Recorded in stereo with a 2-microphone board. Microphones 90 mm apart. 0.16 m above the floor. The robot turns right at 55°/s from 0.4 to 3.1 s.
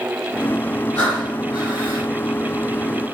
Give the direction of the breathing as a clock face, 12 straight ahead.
6 o'clock.